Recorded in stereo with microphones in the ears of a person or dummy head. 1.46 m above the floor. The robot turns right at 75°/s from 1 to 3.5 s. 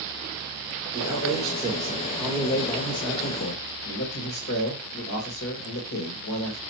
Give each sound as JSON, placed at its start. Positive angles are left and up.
{"t": 0.9, "sound": "a man speaking", "azimuth_deg": -100, "distance_m": 2.0}